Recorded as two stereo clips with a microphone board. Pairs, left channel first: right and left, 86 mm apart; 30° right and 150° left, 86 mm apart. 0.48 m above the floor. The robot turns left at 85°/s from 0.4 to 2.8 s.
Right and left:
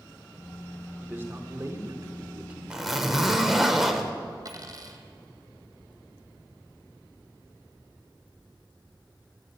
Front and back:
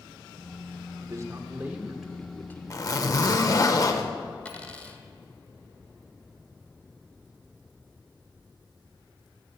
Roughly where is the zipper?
Ahead.